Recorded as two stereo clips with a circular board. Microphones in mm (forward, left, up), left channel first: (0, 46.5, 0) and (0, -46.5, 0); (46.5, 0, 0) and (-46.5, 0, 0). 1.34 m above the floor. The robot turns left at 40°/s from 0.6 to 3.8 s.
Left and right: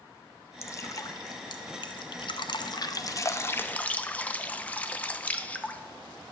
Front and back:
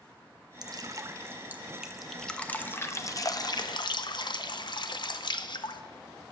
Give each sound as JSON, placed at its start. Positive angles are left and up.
{"t": 0.6, "sound": "dripping", "azimuth_deg": 145, "distance_m": 0.5}